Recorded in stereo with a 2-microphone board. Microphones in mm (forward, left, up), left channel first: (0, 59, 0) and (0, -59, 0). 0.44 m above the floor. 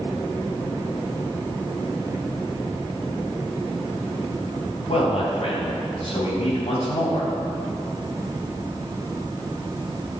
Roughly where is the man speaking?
Left.